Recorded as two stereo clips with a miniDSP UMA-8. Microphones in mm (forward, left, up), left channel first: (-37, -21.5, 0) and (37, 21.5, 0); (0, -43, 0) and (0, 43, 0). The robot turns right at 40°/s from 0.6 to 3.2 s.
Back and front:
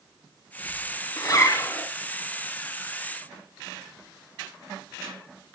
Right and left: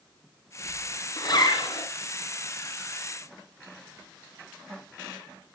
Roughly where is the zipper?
Behind right.